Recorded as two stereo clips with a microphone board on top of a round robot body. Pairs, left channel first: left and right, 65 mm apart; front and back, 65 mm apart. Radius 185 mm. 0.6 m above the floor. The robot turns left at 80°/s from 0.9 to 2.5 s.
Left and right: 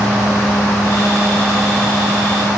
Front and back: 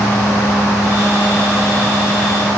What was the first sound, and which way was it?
Only background noise.